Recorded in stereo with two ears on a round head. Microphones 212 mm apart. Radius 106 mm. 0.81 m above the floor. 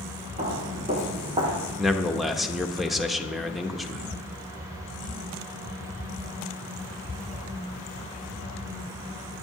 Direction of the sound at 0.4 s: 30° right (ahead or behind).